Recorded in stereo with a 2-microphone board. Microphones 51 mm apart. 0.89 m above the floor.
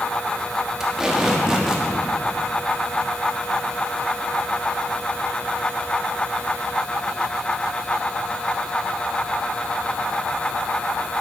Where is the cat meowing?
No cat meowing in this recording.